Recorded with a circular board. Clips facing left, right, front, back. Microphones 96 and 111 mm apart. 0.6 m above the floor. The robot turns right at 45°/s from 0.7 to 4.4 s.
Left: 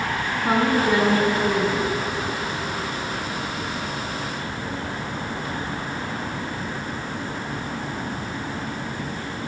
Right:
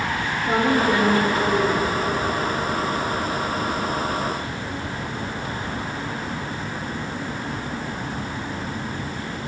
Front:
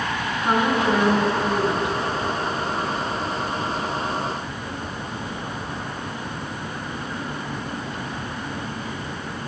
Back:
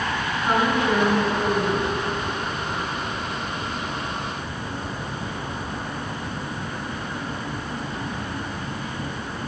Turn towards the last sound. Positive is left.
turn(degrees=-125)